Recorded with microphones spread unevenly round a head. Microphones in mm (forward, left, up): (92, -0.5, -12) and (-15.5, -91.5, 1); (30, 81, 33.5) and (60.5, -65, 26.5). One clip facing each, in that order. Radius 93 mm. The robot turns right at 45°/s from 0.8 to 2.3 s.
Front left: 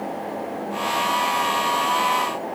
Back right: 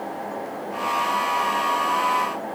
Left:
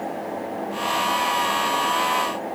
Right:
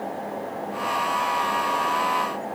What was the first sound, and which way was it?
Only background noise.